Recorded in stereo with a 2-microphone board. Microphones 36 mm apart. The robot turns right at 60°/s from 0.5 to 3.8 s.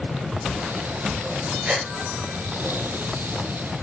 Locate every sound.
1.6 s a gasp: 35° right (ahead or behind), 2.5 m; by 1.9 s 25° right (ahead or behind), 2.5 m